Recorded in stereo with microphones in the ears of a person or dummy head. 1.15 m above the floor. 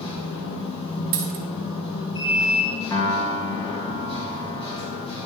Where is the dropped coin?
40° right (ahead or behind), 0.7 m.